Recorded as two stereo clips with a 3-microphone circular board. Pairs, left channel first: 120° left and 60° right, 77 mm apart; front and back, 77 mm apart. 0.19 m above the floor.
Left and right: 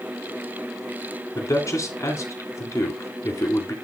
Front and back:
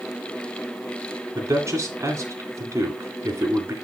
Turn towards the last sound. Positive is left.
turn(degrees=145)